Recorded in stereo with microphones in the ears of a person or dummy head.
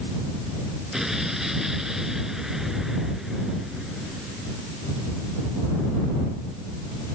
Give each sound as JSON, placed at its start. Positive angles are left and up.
{"t": 0.9, "sound": "an explosion", "side_deg": 0}